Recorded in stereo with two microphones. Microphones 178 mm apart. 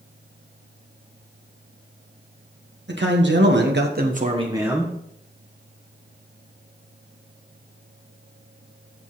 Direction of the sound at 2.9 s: 80° right.